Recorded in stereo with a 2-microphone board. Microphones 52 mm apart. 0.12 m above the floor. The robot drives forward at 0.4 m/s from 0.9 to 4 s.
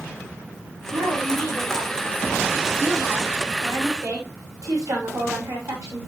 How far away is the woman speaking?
About 9.5 m.